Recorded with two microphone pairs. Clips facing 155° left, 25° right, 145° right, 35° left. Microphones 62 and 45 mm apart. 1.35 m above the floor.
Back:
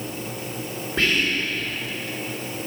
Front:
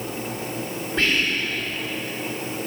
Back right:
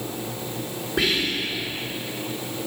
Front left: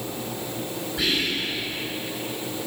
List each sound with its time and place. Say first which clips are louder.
1.0 s whispering: even, back right 2 dB; 135° right, 1.8 m